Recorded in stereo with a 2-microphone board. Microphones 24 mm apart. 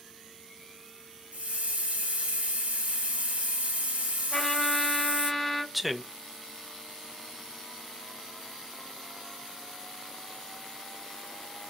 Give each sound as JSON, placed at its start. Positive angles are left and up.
{"t": 1.3, "sound": "a hiss", "side_deg": -80, "distance_m": 1.8}
{"t": 4.3, "sound": "a trumpet", "side_deg": 10, "distance_m": 2.0}
{"t": 5.7, "sound": "a man speaking", "side_deg": 0, "distance_m": 0.5}